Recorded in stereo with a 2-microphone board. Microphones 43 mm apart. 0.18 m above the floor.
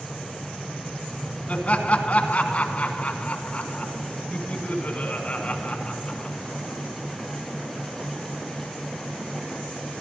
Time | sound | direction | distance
1.5 | laughter | 35° left (ahead or behind) | 1.3 m